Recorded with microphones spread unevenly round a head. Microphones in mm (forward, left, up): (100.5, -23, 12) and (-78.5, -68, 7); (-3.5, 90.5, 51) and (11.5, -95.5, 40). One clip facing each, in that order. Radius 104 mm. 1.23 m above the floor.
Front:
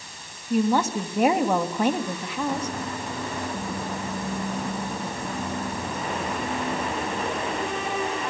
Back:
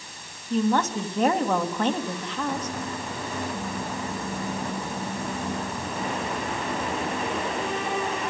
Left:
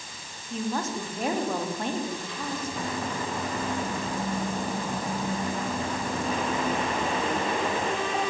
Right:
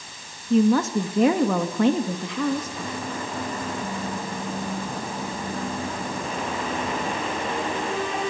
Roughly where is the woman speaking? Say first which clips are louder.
Front 1 dB, right 12 dB; ahead right.